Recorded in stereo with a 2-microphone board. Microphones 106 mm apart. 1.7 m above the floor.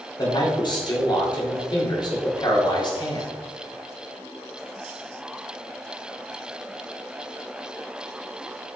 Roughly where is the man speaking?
Left.